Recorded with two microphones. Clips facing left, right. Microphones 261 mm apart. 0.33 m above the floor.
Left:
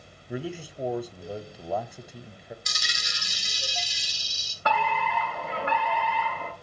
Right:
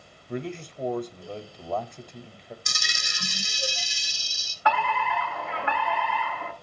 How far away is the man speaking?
About 1.0 m.